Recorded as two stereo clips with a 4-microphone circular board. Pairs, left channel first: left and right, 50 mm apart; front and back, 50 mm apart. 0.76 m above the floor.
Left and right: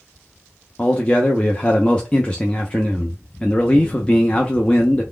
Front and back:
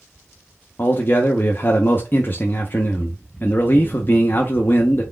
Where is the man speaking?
25° left, 0.6 m.